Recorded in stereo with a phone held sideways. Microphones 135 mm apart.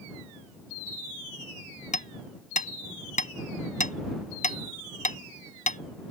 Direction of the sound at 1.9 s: 70° left (ahead or behind).